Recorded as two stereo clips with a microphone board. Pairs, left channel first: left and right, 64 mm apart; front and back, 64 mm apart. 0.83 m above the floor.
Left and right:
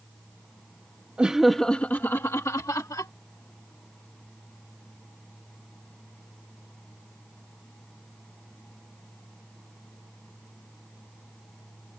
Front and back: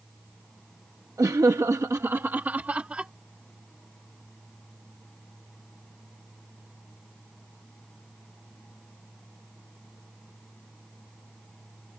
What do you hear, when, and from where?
1.2 s laughter: 160° right; by 3.1 s 110° left